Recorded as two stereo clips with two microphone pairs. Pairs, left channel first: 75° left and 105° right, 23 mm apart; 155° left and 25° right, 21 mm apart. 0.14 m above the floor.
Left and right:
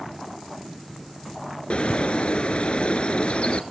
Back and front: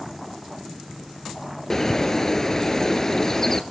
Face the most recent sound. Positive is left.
turn(degrees=95)